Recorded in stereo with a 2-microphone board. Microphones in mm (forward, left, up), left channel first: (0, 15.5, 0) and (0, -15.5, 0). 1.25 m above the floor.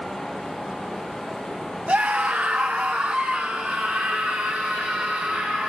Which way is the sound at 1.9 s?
40° right (ahead or behind).